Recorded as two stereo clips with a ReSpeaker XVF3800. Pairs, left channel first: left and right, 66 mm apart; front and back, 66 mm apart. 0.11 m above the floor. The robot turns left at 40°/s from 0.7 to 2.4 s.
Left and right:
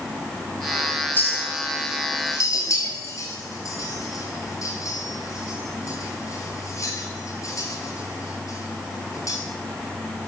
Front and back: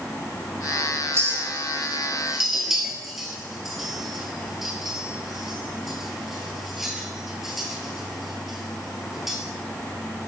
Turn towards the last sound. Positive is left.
turn(degrees=95)